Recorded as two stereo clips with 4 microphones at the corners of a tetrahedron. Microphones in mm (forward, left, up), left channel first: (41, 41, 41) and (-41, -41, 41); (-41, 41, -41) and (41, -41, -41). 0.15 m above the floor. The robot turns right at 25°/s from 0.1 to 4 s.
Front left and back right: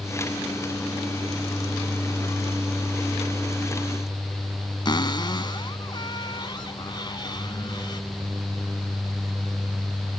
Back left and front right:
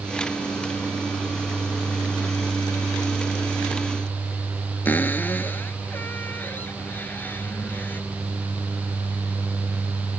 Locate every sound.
4.8 s a cupboard door: 70° left